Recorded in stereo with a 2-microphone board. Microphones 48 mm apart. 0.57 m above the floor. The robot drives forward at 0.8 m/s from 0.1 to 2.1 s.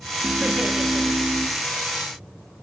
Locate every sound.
0.2 s laughter: 15° right (ahead or behind), 0.8 m; by 1.5 s 10° right (ahead or behind), 1.0 m